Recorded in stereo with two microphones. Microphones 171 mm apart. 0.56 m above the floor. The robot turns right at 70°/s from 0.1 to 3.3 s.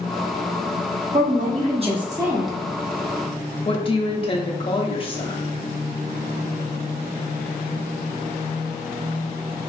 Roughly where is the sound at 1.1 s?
Right.